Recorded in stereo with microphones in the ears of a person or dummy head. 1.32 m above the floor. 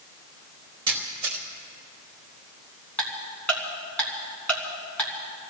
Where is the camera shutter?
25° right (ahead or behind), 2.5 m.